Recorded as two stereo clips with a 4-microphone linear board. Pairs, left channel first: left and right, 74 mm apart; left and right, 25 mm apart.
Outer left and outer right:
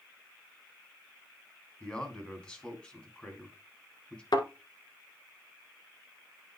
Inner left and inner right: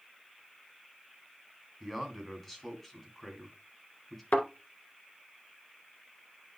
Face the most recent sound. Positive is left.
turn(degrees=80)